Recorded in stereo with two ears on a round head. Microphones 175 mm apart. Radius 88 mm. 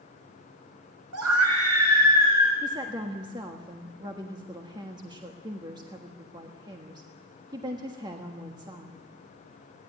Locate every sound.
1.1 s a scream: 85° right, 7 m
2.6 s a woman speaking: 20° right (ahead or behind), 1.5 m